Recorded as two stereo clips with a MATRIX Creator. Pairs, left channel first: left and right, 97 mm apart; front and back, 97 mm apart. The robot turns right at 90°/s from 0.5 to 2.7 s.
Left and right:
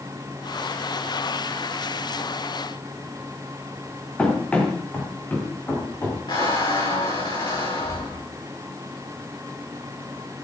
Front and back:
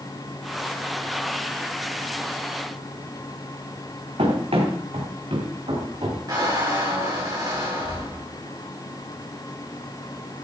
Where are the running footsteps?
170° left, 4 m; by 6.2 s 155° left, 5 m.